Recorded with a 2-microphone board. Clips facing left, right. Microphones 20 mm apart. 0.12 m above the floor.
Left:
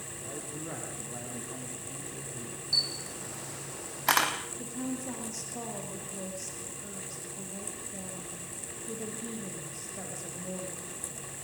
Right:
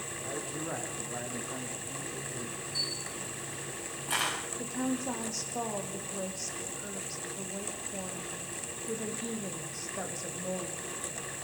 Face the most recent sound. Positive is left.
turn(degrees=-30)  # may be behind; listen again after turning